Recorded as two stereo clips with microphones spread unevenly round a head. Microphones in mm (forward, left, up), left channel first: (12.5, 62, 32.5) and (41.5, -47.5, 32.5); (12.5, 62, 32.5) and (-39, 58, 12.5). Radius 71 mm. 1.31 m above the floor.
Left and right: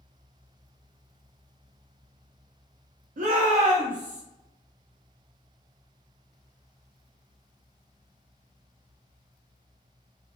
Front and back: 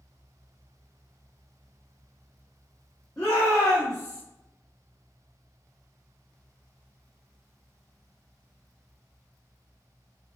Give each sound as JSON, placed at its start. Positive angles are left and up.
{"t": 3.2, "sound": "a shout", "azimuth_deg": -65, "distance_m": 0.6}